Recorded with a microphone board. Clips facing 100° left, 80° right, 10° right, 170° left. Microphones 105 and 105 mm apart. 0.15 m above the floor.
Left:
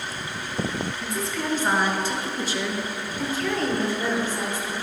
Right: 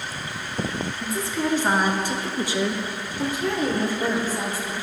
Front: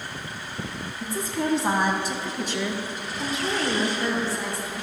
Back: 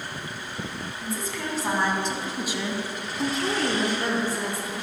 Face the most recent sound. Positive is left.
turn(degrees=-155)